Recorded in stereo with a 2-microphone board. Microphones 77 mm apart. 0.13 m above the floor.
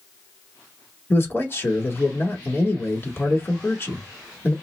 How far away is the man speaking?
About 1.2 m.